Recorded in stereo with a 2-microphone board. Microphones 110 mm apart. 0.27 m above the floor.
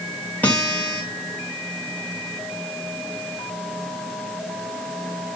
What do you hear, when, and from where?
0.4 s a guitar: 15° left (ahead or behind), 1.6 m